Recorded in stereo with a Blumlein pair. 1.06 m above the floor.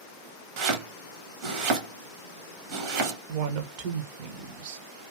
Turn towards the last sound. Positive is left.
turn(degrees=-45)